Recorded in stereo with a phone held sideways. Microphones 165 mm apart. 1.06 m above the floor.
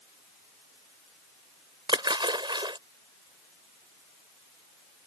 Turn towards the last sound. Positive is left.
turn(degrees=-25)  # may be behind; listen again after turning